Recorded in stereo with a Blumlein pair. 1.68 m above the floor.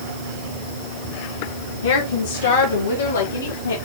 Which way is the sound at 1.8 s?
65° left.